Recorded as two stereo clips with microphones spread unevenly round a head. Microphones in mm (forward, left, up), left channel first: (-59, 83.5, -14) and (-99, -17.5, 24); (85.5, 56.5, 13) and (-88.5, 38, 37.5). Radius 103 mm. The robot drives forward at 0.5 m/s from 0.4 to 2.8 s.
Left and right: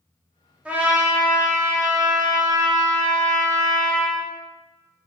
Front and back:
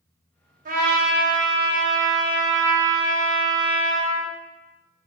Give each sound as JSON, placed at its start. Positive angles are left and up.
{"t": 0.7, "sound": "a trumpet", "azimuth_deg": 155, "distance_m": 0.9}